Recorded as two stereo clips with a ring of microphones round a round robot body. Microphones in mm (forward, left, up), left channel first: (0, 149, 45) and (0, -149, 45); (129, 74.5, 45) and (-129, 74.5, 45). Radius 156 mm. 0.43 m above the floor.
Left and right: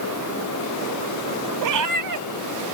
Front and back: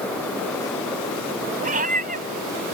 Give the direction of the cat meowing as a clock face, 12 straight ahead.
4 o'clock.